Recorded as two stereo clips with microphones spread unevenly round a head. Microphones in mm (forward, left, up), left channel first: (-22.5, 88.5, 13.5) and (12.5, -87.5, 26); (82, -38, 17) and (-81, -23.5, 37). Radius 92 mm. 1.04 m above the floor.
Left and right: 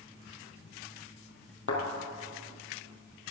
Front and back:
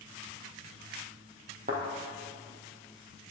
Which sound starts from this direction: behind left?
A thud, at 1.7 s.